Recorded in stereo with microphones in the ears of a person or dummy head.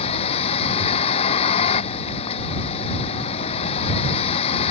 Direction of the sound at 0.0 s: 35° left (ahead or behind).